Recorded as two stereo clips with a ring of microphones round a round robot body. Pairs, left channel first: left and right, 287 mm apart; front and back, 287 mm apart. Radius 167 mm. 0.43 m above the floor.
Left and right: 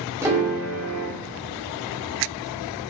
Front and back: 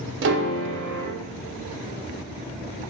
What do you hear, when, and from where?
0.2 s a piano: 165° right, 0.5 m